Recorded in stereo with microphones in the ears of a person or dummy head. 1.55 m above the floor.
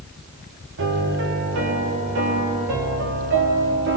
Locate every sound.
0.8 s a piano: 65° right (ahead or behind), 4 m